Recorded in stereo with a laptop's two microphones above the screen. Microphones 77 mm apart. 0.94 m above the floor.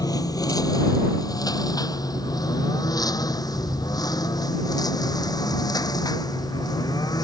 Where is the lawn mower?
55° left (ahead or behind); by 7.2 s 60° left (ahead or behind).